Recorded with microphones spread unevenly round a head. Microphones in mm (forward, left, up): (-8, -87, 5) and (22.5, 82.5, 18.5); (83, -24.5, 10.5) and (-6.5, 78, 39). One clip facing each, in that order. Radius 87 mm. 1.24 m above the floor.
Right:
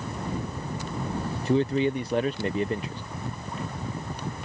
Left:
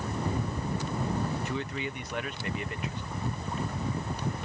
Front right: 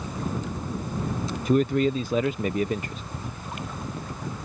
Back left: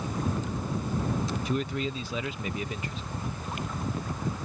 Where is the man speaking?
50° right.